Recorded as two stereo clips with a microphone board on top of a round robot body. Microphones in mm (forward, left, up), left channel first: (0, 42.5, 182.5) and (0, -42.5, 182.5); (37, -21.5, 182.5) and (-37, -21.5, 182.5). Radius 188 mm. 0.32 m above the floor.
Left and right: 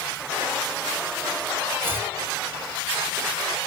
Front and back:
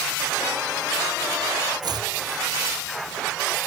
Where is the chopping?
155° right, 1.0 m.